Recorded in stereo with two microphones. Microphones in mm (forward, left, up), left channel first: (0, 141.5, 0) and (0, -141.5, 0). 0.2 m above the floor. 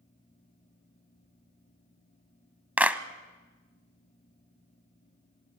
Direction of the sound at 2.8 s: 5° right (ahead or behind).